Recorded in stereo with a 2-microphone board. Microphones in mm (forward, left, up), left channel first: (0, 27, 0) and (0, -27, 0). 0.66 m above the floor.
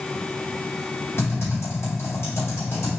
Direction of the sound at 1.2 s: 55° left (ahead or behind).